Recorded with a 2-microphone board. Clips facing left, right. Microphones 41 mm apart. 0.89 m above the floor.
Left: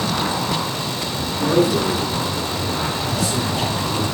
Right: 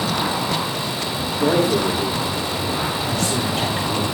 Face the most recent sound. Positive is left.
turn(degrees=-55)  # may be behind; listen again after turning